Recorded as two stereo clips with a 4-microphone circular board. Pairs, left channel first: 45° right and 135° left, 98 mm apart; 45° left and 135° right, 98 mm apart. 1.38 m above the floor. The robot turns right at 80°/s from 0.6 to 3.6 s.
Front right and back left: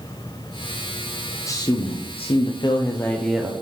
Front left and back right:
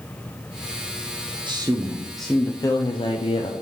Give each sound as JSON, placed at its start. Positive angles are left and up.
{"t": 1.5, "sound": "a man speaking", "azimuth_deg": -100, "distance_m": 0.5}